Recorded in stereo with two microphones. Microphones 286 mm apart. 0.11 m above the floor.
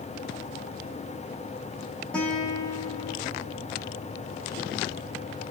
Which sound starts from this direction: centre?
A guitar, at 2.1 s.